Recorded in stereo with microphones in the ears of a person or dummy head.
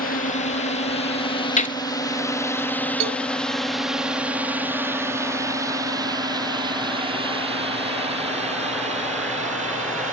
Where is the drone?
40° left (ahead or behind); by 10.1 s 40° right (ahead or behind).